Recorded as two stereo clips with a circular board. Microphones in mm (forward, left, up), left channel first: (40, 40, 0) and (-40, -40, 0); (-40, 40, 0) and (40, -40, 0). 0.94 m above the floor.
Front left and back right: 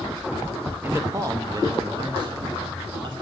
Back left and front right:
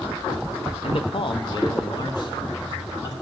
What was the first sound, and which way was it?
A man speaking, 155° left.